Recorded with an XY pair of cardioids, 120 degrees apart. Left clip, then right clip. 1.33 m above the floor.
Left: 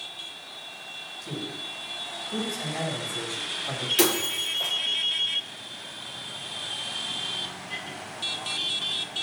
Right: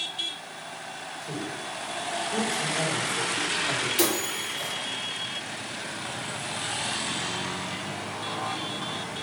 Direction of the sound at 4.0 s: 25° left.